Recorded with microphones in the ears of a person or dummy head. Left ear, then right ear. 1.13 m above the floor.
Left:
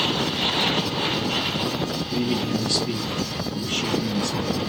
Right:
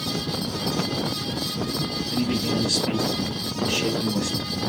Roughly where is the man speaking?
Right.